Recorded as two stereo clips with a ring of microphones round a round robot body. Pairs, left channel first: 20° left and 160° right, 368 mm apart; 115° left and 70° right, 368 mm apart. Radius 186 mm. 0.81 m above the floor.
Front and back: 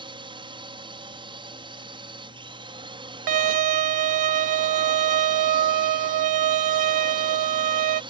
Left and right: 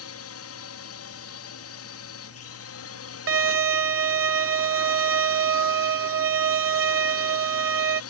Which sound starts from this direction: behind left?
A drone, at 0.0 s.